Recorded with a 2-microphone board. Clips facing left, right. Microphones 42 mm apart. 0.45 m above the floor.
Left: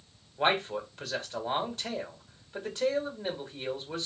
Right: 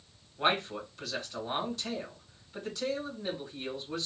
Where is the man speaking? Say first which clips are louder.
Left 2 dB; 40° left (ahead or behind), 2.5 m.